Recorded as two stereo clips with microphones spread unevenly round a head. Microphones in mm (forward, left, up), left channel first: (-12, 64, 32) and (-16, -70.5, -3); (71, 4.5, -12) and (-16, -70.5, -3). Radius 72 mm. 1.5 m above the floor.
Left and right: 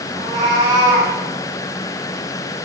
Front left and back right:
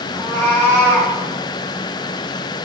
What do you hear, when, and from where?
0.1 s a cat meowing: 25° right, 4.5 m